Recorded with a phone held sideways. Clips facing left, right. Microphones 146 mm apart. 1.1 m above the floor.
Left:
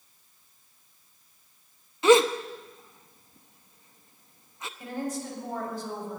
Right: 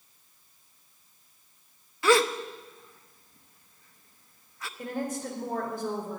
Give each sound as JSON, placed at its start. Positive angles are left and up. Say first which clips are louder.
{"t": 2.0, "sound": "a gasp", "louder": "left 4 dB", "side_deg": 20, "distance_m": 0.7}
{"t": 4.8, "sound": "a woman speaking", "louder": "right 1 dB", "side_deg": -55, "distance_m": 4.0}